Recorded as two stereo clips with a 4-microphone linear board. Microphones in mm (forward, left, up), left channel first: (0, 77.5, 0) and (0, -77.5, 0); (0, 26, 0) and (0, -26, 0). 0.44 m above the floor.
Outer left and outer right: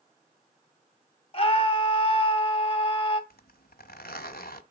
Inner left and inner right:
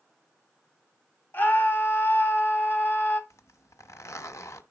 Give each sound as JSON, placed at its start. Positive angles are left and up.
{"t": 1.3, "sound": "a scream", "side_deg": 40, "distance_m": 2.5}
{"t": 3.3, "sound": "a zipper", "side_deg": 85, "distance_m": 0.9}